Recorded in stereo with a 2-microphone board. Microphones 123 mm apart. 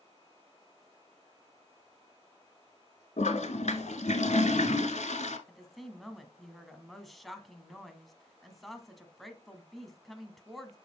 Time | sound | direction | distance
3.2 | a toilet flushing | 70° left (ahead or behind) | 1.0 m
5.5 | a woman speaking | centre (ahead or behind) | 1.4 m